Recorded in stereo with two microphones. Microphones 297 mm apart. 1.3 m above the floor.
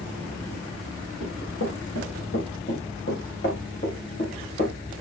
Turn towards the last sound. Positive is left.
turn(degrees=30)  # may be behind; listen again after turning